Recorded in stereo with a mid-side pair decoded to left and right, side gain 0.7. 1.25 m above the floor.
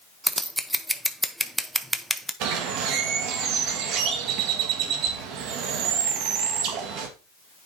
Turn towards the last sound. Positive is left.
turn(degrees=-60)